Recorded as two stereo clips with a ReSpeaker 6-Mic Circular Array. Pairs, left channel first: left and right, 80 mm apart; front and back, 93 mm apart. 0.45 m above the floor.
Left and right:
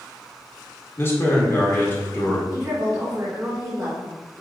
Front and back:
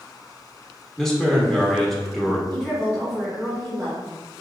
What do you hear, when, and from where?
1.0 s a man speaking: 80° left, 0.9 m
2.5 s a woman speaking: 60° right, 1.7 m